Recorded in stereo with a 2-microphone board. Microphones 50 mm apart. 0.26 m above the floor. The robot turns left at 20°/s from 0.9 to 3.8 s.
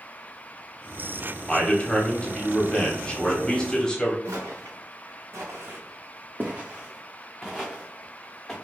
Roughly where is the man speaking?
Left.